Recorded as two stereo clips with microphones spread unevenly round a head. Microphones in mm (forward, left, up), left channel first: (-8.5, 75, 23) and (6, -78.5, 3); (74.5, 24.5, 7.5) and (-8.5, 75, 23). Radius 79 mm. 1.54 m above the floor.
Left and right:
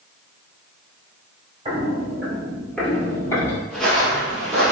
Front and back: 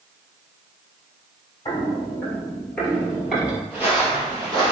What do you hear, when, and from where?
1.6 s footsteps: 40° right, 1.6 m; by 3.6 s 85° left, 1.8 m
3.7 s footsteps: 155° left, 1.6 m; by 4.7 s 175° right, 2.5 m